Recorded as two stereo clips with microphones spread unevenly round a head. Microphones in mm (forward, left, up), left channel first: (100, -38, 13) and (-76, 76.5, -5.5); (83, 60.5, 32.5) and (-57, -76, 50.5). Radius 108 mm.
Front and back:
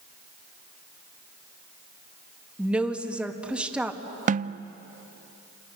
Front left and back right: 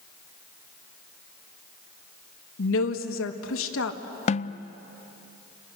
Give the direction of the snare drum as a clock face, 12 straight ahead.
9 o'clock.